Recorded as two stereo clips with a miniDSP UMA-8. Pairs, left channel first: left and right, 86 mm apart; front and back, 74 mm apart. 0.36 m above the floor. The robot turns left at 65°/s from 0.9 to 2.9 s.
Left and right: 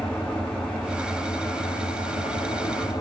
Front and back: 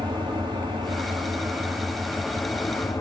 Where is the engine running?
170° left, 7 m; by 3.0 s 40° left, 7 m.